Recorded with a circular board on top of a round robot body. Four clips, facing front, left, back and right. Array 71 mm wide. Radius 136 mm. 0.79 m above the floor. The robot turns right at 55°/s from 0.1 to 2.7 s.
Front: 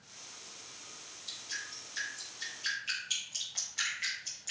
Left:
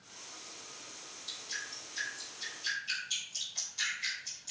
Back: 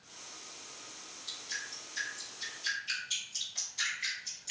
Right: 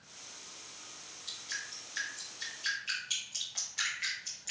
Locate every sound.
1.3 s dripping: 125° right, 0.6 m; by 4.5 s 45° right, 0.6 m